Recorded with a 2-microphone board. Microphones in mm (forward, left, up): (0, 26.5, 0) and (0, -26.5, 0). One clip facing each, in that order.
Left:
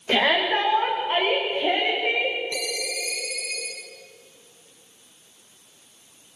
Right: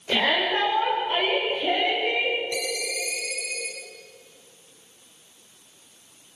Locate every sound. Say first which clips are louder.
0.1 s a shout: left 2 dB; 25° left (ahead or behind), 9.5 m; by 2.4 s 20° left (ahead or behind), 8.5 m
2.5 s a ringtone: right 1 dB; 10° right (ahead or behind), 3.5 m